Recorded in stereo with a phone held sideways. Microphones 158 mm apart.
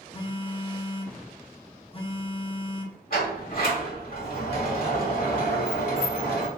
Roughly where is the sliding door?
Left.